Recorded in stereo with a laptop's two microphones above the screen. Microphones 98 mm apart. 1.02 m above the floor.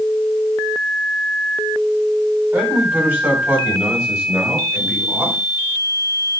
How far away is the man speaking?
About 8 m.